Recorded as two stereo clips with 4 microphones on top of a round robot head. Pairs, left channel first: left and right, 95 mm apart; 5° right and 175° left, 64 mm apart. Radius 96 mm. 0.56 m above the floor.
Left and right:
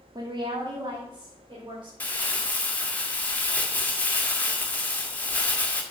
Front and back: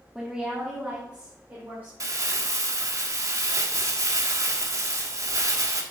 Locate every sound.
0.1 s a woman speaking: 105° right, 1.3 m; by 1.9 s 125° right, 3 m
2.0 s crumpling: 160° left, 1.8 m